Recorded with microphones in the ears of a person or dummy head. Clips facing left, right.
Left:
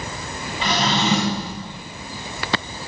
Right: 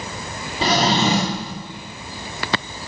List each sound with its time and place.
0.6 s a drawer: 35° right (ahead or behind), 1.5 m